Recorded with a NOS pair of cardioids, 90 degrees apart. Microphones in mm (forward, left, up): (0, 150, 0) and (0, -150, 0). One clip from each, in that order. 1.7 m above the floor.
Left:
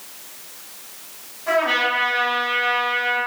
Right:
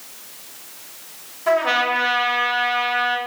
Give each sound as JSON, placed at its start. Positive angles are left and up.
{"t": 1.5, "sound": "a trumpet", "azimuth_deg": -50, "distance_m": 0.8}